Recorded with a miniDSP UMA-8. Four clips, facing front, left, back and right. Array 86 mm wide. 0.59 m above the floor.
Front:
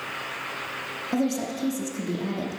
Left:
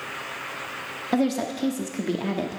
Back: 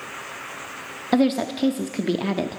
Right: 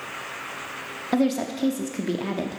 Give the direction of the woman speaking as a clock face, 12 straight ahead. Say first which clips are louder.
Right 1 dB, back 6 dB; 6 o'clock.